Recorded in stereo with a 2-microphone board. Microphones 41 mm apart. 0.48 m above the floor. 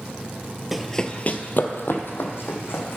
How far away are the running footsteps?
About 0.6 m.